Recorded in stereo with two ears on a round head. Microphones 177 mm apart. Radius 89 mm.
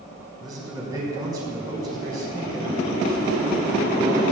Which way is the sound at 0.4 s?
20° right (ahead or behind).